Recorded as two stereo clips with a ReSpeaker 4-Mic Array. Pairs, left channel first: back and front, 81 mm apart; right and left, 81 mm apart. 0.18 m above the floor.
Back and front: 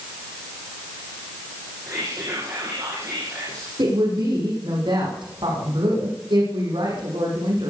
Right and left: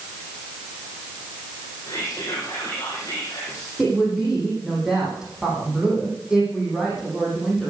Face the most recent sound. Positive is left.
turn(degrees=10)